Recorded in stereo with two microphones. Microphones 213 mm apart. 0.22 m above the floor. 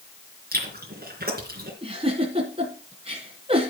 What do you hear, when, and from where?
0.5 s chewing: 50° right (ahead or behind), 3.5 m
1.8 s a giggle: 30° right (ahead or behind), 2.5 m